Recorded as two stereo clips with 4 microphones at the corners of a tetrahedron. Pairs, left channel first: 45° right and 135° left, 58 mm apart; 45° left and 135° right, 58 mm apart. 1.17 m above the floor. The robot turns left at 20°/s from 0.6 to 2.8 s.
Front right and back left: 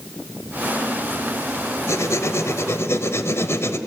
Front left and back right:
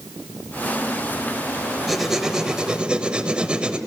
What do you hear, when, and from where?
1.9 s writing: 50° right, 1.3 m; by 3.8 s 70° right, 1.3 m